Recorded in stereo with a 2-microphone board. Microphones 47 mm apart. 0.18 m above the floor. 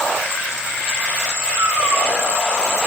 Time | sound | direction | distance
1.5 | a cat meowing | 85° right | 6.5 m